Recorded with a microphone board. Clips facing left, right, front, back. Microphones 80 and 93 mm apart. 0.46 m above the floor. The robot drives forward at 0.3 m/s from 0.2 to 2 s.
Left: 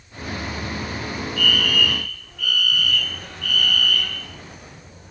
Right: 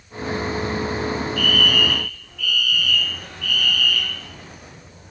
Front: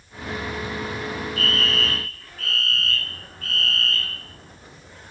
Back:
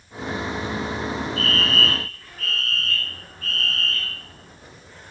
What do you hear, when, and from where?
1.4 s a fire alarm: 130° left, 3.5 m